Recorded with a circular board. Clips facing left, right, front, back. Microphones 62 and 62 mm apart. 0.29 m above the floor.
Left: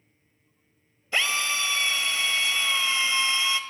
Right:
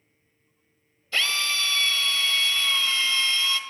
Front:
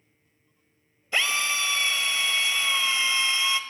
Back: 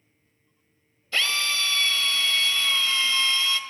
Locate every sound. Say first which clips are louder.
1.1 s a drill: even, even; 45° left, 1.6 m